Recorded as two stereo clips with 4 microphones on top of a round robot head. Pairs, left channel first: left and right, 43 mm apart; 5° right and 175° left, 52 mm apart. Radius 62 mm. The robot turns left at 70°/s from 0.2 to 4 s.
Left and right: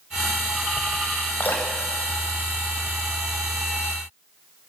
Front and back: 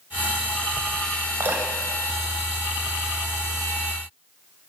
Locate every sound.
1.4 s dripping: 135° left, 6.5 m; by 3.1 s 15° left, 6.5 m